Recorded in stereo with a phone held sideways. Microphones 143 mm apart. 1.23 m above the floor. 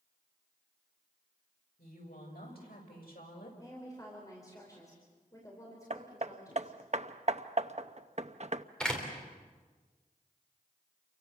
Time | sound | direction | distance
1.8 | a woman speaking | 80° left | 7.5 m
3.6 | a woman speaking | 25° left (ahead or behind) | 4.5 m
5.9 | hammering | 50° right (ahead or behind) | 0.7 m
8.8 | a door slam | 5° left (ahead or behind) | 4 m